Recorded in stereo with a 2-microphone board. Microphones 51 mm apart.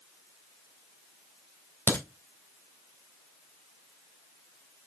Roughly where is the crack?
Left.